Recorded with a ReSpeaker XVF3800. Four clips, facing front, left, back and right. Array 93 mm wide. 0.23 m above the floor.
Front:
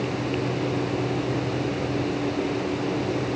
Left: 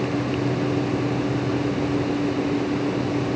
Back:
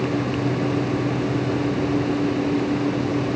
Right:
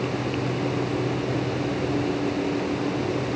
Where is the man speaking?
No man speaking in this recording.